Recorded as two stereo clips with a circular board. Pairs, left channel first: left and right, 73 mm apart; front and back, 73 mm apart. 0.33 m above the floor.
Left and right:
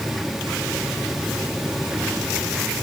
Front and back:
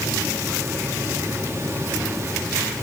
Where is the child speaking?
No child speaking in this recording.